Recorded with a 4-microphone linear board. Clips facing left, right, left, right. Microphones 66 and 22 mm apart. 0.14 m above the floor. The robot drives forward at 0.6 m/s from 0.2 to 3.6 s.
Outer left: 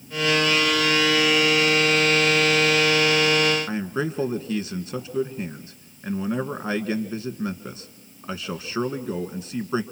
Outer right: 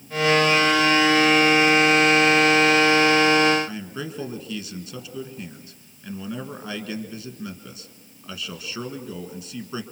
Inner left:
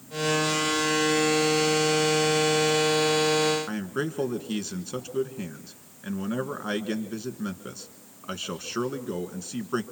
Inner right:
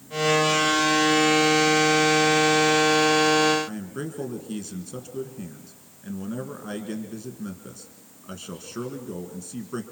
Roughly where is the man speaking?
Left.